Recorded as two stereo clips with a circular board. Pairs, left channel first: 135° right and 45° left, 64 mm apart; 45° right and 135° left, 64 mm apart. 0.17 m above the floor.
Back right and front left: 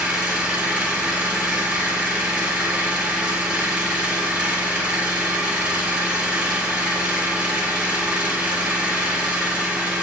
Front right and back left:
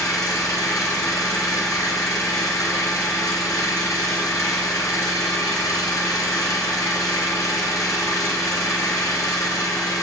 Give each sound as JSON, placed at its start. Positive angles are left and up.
{"t": 0.0, "sound": "an engine running", "azimuth_deg": -25, "distance_m": 1.1}